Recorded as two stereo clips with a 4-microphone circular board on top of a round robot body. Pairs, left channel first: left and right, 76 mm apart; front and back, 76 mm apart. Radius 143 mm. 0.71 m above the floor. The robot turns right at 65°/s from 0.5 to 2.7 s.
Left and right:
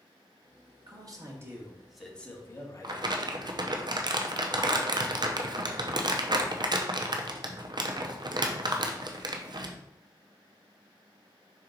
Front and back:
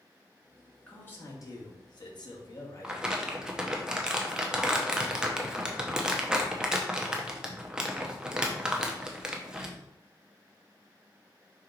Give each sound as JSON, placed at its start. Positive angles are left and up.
{"t": 0.9, "sound": "a man speaking", "azimuth_deg": -75, "distance_m": 1.9}
{"t": 2.8, "sound": "crumpling", "azimuth_deg": -100, "distance_m": 0.9}